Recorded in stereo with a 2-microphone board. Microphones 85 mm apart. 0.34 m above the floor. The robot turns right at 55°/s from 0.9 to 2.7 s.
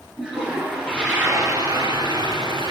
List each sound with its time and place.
0.2 s a toilet flushing: 175° right, 3.5 m; by 2.7 s 75° right, 3.5 m